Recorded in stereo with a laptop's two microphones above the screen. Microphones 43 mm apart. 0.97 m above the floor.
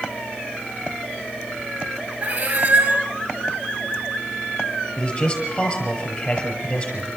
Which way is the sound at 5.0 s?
30° left (ahead or behind).